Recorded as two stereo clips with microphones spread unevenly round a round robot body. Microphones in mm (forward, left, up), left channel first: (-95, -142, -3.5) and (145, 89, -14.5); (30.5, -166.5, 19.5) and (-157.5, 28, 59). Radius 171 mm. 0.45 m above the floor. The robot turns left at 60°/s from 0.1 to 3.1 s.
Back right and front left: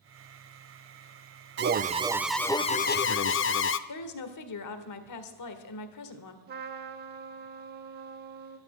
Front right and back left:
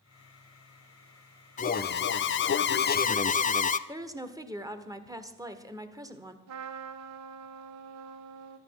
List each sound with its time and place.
1.6 s an alarm: straight ahead, 0.6 m; by 3.8 s 90° right, 0.6 m
3.9 s a woman speaking: 145° right, 1.5 m
6.5 s a trumpet: 100° left, 0.8 m